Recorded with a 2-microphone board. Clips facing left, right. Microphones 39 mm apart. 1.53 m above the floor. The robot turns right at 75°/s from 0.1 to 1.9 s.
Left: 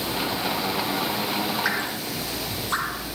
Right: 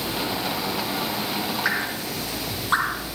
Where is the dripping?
Centre (ahead or behind), 4.5 m; by 3.1 s 20° right (ahead or behind), 4.5 m.